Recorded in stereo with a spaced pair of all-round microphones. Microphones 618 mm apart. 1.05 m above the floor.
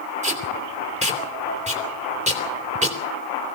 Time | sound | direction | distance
0.2 | tape being pulled | 10° right (ahead or behind) | 3 m